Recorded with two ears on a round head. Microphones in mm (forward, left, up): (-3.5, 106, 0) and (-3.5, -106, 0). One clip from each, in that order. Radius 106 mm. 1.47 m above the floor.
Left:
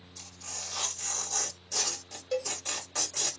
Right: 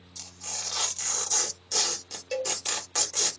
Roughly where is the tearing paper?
Right.